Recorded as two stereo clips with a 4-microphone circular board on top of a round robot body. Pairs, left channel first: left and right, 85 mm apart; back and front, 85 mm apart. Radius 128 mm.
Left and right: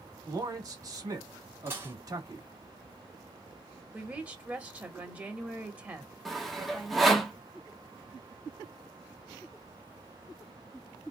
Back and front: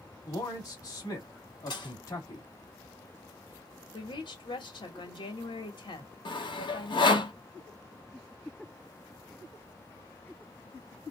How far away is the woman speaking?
About 1.9 m.